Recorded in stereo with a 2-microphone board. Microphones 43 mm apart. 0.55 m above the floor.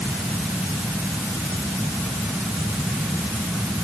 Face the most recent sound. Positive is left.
No sound to turn to.